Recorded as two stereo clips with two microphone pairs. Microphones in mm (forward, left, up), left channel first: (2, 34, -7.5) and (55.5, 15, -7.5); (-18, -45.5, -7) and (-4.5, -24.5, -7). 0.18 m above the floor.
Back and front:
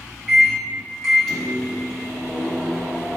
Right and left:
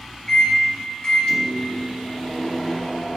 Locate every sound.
0.3 s a microwave: 115° right, 1.4 m